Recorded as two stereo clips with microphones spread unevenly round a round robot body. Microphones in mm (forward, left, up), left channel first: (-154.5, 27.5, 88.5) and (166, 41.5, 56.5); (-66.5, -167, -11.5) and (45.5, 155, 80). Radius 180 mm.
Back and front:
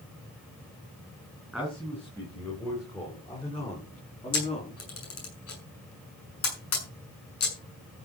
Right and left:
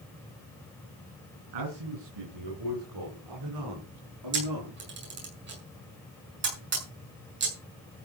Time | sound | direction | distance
1.5 | a man speaking | 95° left | 6 m
4.3 | a camera shutter | 135° left | 6 m